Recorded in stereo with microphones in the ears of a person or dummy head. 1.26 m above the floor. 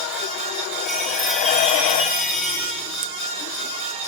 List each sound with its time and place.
0.8 s a chime: centre (ahead or behind), 8 m